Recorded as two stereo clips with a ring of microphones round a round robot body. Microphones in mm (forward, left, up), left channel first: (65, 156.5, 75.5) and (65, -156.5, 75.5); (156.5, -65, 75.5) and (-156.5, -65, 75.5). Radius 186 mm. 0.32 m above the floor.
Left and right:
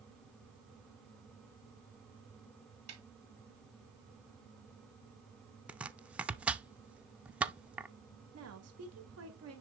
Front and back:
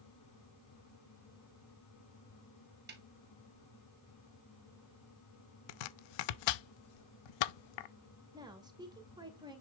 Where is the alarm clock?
No alarm clock in this recording.